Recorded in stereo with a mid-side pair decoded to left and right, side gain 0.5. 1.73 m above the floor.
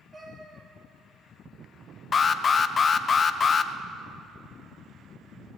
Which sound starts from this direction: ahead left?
An alarm, at 2.1 s.